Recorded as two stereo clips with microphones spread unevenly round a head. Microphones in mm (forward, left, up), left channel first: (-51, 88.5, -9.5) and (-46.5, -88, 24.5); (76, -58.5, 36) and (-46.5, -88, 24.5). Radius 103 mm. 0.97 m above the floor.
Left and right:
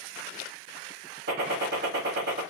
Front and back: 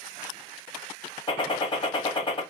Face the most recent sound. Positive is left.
turn(degrees=-40)